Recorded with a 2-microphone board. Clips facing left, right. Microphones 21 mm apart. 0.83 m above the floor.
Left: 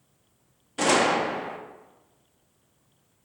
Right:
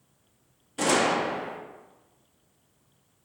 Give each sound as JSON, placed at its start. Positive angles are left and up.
{"t": 0.8, "sound": "a gunshot", "side_deg": 25, "distance_m": 0.8}